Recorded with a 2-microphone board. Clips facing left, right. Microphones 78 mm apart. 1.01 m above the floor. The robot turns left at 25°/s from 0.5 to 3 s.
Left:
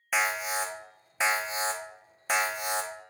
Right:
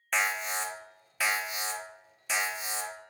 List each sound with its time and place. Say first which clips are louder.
0.1 s an alarm: left 2 dB; 175° left, 0.6 m; by 2.9 s 115° left, 0.6 m